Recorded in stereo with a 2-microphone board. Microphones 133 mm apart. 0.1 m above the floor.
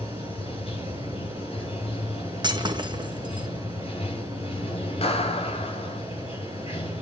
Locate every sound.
0.0 s running water: 45° left (ahead or behind), 6 m
2.4 s breaking glass: 35° right (ahead or behind), 1.7 m
5.0 s a clap: 45° left (ahead or behind), 1.6 m